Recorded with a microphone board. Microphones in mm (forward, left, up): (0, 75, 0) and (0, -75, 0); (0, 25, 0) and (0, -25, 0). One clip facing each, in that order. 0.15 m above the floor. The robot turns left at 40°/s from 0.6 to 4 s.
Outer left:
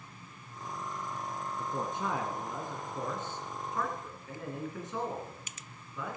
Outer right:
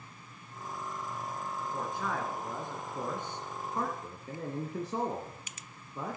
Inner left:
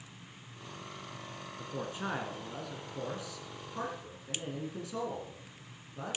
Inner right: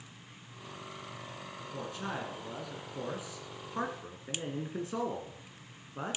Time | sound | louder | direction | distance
1.6 | a man speaking | outer left 2 dB, inner left 2 dB | 30° left (ahead or behind) | 1.9 m